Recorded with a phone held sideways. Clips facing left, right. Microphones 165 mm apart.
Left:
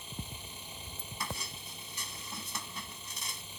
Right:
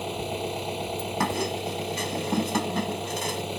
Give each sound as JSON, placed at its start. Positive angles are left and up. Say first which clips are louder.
{"t": 0.0, "sound": "an engine running", "louder": "right 18 dB", "side_deg": -75}
{"t": 1.2, "sound": "a squeak", "louder": "right 15 dB", "side_deg": -70}